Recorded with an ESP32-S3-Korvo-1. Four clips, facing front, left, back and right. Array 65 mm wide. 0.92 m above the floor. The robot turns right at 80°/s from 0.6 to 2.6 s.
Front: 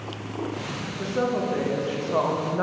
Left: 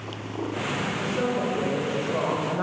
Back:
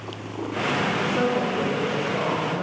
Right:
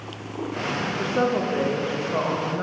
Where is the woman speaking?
115° right, 0.7 m; by 2.6 s 15° left, 0.7 m.